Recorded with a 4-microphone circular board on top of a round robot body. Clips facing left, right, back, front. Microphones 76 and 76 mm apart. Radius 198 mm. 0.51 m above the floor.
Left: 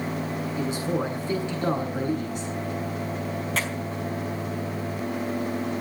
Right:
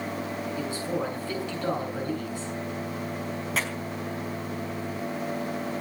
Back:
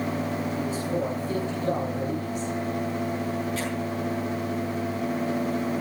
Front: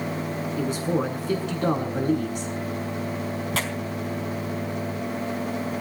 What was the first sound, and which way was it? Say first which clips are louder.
A man speaking: left 4 dB, front 6 dB; 20° left.